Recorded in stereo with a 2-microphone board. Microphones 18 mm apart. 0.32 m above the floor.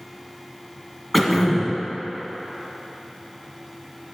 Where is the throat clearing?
5° left (ahead or behind), 1.9 m.